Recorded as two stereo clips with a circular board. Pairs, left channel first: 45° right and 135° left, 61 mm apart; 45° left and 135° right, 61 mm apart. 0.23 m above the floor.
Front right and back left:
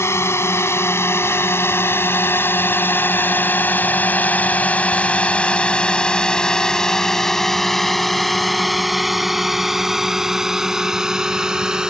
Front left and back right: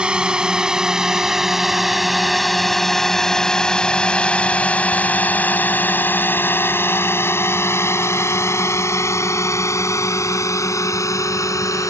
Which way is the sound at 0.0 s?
65° right.